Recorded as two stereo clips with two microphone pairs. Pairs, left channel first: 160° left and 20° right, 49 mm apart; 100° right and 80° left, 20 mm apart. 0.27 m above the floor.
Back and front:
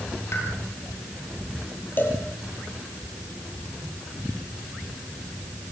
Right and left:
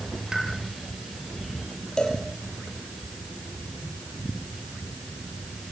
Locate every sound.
0.3 s a pop: 140° left, 6.5 m
2.0 s a cowbell: 150° right, 5 m